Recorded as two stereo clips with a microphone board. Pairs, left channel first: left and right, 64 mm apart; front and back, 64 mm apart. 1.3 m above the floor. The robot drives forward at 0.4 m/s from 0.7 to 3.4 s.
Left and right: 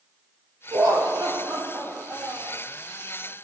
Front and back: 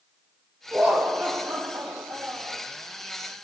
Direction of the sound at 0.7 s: 110° right.